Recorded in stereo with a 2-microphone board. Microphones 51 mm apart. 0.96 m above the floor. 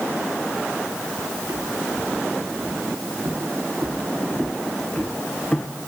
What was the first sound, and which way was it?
Footsteps, 80° right.